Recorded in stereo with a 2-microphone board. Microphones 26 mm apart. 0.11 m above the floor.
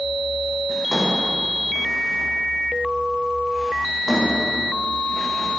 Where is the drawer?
10° left (ahead or behind), 6.5 m.